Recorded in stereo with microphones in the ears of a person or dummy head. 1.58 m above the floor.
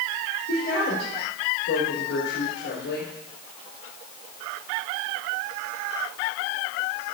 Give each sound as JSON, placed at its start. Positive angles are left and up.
{"t": 0.5, "sound": "a woman speaking", "side_deg": 75, "distance_m": 4.5}